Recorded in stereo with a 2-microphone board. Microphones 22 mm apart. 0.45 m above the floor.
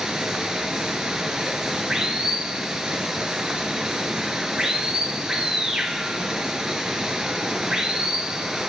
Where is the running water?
35° right (ahead or behind), 1.6 m.